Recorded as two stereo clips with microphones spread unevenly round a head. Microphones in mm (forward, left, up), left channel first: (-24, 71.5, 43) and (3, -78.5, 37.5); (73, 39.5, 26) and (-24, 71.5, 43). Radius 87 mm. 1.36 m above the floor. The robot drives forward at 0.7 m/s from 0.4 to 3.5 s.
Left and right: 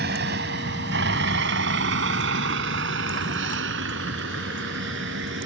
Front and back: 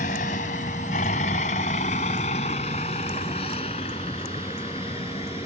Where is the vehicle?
50° right; by 5.5 s 75° right.